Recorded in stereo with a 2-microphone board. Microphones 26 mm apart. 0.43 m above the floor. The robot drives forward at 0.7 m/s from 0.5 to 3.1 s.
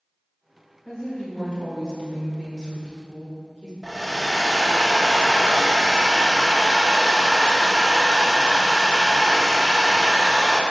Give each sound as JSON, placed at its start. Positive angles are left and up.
{"t": 0.8, "sound": "a woman speaking", "side_deg": 20, "distance_m": 1.8}
{"t": 3.8, "sound": "a hair dryer", "side_deg": 15, "distance_m": 0.7}